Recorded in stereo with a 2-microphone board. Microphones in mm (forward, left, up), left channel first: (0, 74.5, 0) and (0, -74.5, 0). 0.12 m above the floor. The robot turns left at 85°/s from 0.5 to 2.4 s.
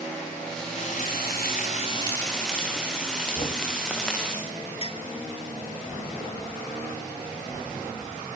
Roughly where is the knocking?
Left.